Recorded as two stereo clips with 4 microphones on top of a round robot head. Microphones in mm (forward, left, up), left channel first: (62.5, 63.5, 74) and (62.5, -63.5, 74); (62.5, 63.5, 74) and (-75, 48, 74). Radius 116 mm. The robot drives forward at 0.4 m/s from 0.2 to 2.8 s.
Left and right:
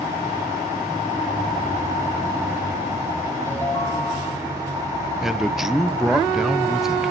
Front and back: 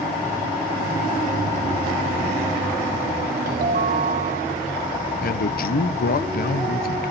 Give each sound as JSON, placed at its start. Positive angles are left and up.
{"t": 3.5, "sound": "a ringtone", "azimuth_deg": 165, "distance_m": 2.0}
{"t": 5.2, "sound": "a man speaking", "azimuth_deg": -5, "distance_m": 0.8}